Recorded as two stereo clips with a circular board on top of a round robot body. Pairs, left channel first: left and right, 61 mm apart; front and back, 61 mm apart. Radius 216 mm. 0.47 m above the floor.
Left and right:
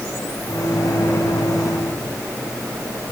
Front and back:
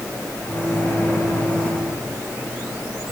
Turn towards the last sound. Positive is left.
turn(degrees=65)